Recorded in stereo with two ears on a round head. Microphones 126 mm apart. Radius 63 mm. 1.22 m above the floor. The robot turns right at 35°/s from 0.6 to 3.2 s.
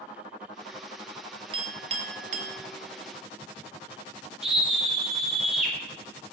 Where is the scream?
5° right (ahead or behind), 2.0 m.